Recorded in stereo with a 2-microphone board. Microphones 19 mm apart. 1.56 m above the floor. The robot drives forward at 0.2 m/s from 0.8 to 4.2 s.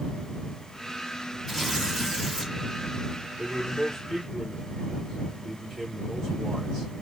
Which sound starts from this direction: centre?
Tearing paper, at 1.5 s.